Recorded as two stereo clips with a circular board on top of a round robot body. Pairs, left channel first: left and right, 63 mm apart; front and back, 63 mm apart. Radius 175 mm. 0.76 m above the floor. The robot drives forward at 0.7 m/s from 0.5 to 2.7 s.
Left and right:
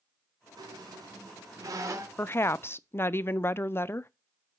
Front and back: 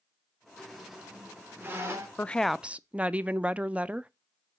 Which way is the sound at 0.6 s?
85° right.